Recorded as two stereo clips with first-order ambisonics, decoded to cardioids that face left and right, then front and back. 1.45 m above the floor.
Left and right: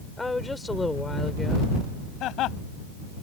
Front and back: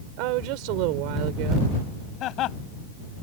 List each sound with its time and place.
0.2 s a woman speaking: 170° left
2.2 s laughter: 45° left